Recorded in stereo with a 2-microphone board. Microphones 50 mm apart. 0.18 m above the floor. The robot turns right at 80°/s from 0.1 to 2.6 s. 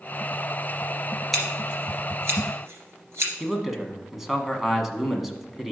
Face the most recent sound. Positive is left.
turn(degrees=-5)  # may be behind; listen again after turning